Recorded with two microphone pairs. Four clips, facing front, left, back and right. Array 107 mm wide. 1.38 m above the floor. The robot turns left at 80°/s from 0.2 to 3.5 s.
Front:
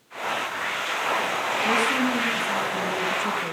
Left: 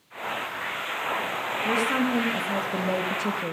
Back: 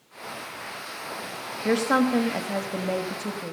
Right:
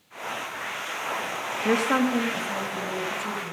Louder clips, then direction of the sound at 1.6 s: Right 3 dB, back 4 dB; 135° right.